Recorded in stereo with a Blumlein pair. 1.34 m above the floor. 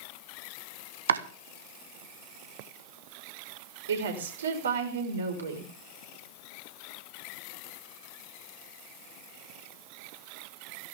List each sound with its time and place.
1.1 s chopping: 65° right, 1.4 m
3.9 s a woman speaking: 65° right, 5 m